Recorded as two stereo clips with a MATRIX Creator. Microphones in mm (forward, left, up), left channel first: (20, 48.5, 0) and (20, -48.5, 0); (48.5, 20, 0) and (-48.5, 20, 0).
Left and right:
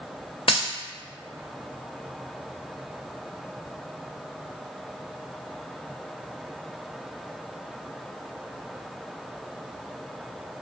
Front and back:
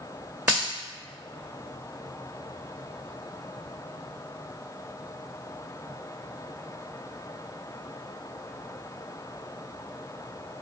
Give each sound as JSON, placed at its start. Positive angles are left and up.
{"t": 0.5, "sound": "a dropped coin", "azimuth_deg": 110, "distance_m": 1.3}